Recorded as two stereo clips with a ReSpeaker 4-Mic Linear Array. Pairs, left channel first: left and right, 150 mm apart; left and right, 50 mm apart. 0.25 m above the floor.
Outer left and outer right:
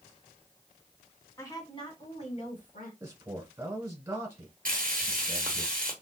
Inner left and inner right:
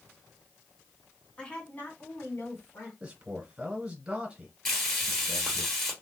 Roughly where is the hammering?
No hammering in this recording.